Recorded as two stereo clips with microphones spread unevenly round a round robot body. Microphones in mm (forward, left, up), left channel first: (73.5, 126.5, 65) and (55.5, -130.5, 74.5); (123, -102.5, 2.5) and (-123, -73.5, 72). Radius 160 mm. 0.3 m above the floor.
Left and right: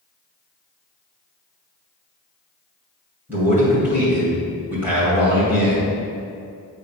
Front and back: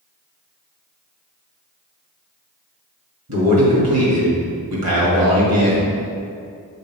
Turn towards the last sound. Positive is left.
turn(degrees=180)